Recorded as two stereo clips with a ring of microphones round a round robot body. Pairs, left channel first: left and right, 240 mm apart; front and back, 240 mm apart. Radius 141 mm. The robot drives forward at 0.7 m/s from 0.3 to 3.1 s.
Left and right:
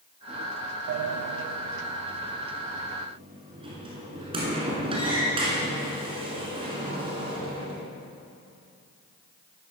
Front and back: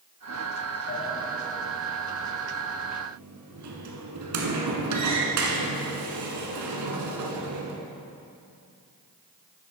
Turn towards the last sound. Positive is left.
turn(degrees=-160)